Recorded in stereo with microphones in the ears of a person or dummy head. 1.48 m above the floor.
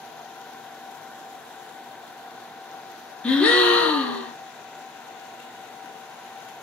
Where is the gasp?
Centre (ahead or behind), 0.8 m.